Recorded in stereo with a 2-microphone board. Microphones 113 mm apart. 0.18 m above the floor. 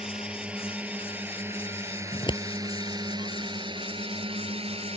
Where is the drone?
5° right (ahead or behind); by 5.0 s 60° right (ahead or behind).